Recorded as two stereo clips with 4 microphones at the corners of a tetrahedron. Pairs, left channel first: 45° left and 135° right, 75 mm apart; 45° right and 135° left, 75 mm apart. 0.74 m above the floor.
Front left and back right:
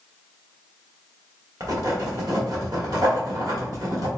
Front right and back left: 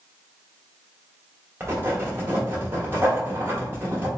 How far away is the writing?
About 1.2 m.